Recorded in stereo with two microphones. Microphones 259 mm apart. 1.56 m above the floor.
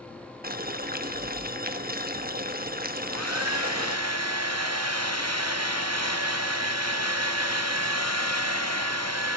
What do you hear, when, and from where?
0.4 s boiling: 35° right (ahead or behind), 1.0 m
3.0 s a hair dryer: 75° right (ahead or behind), 1.1 m